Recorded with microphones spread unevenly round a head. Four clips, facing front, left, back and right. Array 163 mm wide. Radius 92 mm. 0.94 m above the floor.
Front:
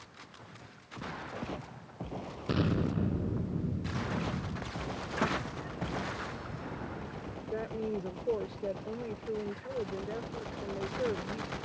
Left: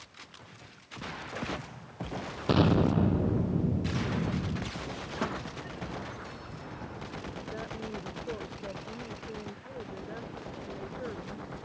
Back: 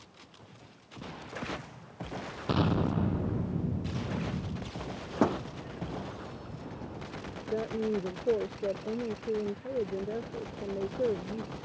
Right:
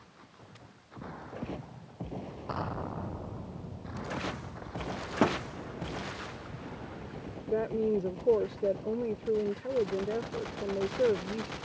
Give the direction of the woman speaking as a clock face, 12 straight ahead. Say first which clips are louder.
Right 13 dB, back 4 dB; 4 o'clock.